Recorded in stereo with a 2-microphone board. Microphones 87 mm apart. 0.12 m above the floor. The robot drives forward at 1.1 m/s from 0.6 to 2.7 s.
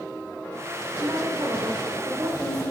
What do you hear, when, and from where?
1.0 s a woman speaking: 55° right (ahead or behind), 2.5 m; by 2.7 s 35° right (ahead or behind), 3.5 m